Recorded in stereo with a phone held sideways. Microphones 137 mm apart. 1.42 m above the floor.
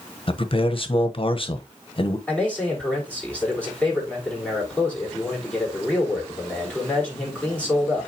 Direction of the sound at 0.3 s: 40° left (ahead or behind).